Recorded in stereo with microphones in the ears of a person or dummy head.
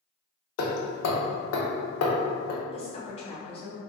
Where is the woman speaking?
25° left (ahead or behind), 0.7 m.